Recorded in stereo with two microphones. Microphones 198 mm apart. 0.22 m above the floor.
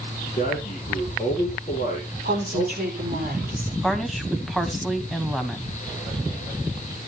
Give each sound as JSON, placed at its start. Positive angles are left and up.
{"t": 0.3, "sound": "a man speaking", "side_deg": 45, "distance_m": 5.0}
{"t": 2.2, "sound": "a woman speaking", "side_deg": -50, "distance_m": 5.0}
{"t": 3.8, "sound": "a woman speaking", "side_deg": 0, "distance_m": 1.5}